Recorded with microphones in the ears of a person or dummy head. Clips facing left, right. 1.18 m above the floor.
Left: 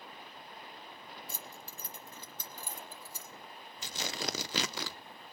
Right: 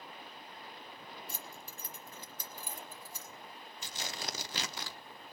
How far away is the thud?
I don't hear a thud.